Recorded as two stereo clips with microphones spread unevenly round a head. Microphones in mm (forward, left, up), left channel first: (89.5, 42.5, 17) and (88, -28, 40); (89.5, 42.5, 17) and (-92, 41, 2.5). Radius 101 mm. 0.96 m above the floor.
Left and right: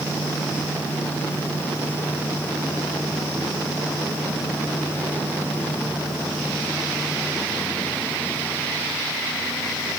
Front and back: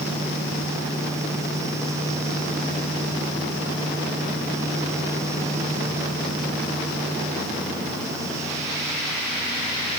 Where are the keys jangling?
No keys jangling in this recording.